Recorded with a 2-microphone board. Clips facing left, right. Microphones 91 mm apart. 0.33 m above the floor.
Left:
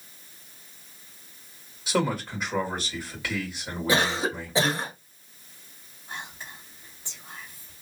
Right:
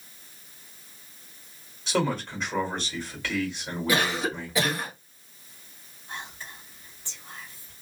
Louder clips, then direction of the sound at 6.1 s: Even; 20° left (ahead or behind).